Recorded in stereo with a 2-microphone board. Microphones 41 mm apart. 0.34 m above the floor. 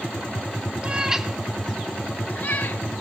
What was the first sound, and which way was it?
A cat meowing, 25° right (ahead or behind).